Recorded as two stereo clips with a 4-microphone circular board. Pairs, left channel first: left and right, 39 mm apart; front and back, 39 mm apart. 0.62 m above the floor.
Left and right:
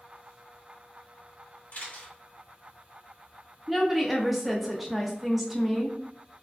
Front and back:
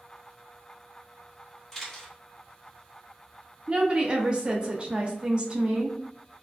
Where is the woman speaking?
175° right, 0.6 m.